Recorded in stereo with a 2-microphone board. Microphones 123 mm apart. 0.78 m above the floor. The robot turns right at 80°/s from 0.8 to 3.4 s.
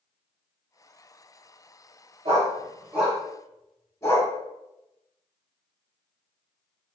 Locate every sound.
2.2 s a dog barking: 60° right (ahead or behind), 1.4 m; by 4.3 s 25° left (ahead or behind), 1.4 m